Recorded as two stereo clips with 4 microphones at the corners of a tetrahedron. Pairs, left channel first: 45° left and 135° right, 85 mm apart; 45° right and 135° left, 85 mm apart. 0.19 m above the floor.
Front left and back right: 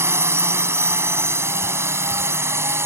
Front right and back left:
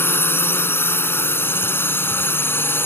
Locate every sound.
0.0 s a drone: 95° right